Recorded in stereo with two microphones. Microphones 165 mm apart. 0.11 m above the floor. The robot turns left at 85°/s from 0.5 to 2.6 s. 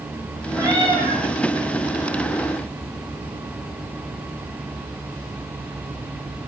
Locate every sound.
0.6 s a cat meowing: 15° right, 4 m; by 1.2 s 70° right, 4 m